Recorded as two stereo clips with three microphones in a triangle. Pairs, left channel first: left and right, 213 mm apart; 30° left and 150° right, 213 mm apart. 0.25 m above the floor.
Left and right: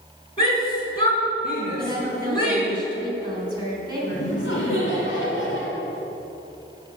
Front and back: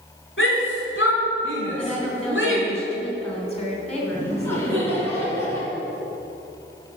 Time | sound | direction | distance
0.4 | a shout | 25° left | 3.5 m
1.8 | a woman speaking | 25° right | 2.5 m
4.1 | laughter | 110° left | 2.5 m